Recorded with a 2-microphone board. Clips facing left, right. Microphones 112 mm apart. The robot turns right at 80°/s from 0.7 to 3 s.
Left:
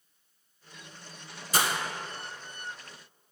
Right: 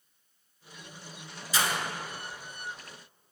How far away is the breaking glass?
About 0.7 m.